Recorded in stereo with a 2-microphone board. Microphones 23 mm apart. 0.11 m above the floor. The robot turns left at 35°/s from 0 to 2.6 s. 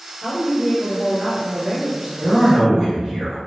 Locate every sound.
0.2 s a woman speaking: 5° left, 1.7 m; by 2.7 s 80° right, 1.7 m
2.2 s a man speaking: 20° right (ahead or behind), 1.5 m; by 3.4 s 30° right (ahead or behind), 1.5 m